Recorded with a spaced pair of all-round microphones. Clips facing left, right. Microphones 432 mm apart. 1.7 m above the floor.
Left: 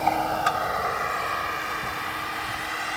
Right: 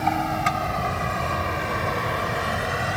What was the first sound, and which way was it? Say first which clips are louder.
A vehicle: right 1 dB; 35° right (ahead or behind).